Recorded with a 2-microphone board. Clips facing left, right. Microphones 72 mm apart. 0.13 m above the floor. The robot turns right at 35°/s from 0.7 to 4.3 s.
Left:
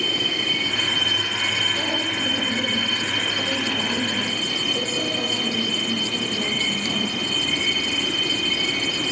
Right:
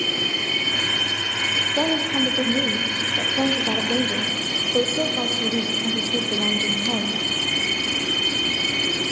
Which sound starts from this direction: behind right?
A woman speaking, at 1.8 s.